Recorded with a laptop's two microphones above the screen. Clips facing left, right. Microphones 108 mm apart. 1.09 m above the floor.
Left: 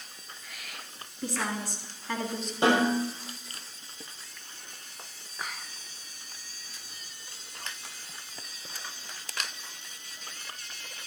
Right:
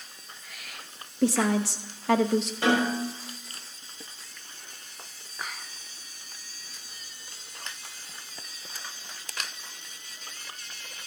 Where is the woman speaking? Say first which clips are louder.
Right 9 dB; 85° right, 1.0 m.